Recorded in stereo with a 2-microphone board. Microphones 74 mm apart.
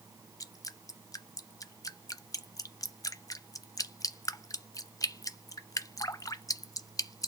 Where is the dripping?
50° left (ahead or behind), 0.5 m.